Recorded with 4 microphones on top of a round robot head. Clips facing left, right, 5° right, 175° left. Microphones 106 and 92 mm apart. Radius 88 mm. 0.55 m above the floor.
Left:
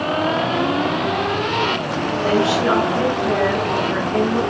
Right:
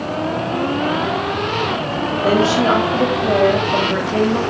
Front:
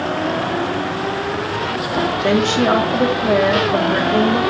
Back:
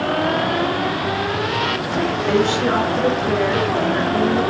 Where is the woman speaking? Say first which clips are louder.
Right 3 dB, front 3 dB; 30° right, 2.5 m.